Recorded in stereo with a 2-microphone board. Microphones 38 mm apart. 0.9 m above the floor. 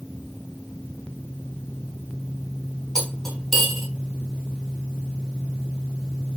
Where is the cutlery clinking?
10° left (ahead or behind), 4 m.